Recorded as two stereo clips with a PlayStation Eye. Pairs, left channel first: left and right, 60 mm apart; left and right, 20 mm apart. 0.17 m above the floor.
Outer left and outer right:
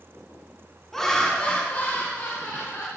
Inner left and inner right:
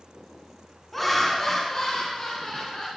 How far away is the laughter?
About 1.2 m.